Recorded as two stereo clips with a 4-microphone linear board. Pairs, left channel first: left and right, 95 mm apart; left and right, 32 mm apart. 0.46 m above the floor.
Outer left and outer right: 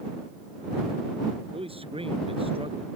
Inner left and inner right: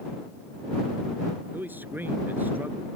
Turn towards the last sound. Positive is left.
turn(degrees=-80)